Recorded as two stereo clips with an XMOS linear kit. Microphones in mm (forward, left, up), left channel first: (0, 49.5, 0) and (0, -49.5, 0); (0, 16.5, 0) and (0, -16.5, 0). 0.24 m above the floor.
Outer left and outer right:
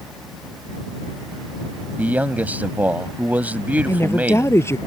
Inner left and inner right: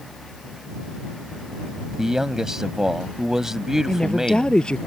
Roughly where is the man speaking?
Centre.